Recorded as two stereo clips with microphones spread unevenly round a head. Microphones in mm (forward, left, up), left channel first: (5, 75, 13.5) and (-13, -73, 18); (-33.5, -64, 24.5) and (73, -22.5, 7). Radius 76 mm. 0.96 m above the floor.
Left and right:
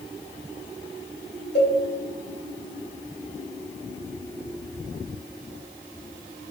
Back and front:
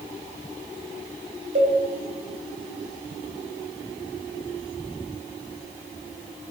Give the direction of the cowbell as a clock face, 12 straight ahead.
11 o'clock.